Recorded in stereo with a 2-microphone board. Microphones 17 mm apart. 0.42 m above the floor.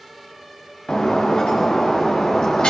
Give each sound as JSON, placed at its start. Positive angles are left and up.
{"t": 0.9, "sound": "breaking glass", "side_deg": 85, "distance_m": 5.0}